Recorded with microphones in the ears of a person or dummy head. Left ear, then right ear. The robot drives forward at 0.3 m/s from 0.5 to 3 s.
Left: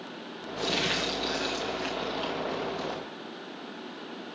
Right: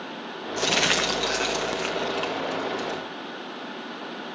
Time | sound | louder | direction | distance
0.6 | crumpling | right 6 dB | 45° right (ahead or behind) | 0.8 m